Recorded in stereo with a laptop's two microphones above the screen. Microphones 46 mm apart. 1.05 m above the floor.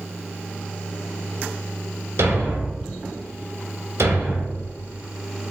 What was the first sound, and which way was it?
A thud, 70° right (ahead or behind).